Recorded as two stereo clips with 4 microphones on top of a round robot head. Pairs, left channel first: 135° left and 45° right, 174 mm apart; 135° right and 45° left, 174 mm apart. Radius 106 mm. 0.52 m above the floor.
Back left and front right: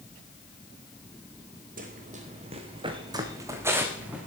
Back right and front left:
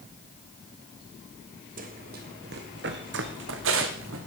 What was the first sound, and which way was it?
Running footsteps, straight ahead.